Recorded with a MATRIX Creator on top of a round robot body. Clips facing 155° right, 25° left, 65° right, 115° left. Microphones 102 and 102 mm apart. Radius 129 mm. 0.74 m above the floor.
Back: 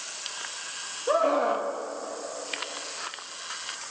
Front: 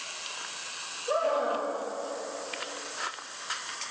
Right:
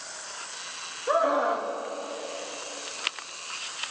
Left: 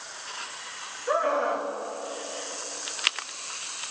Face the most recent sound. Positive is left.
turn(degrees=-145)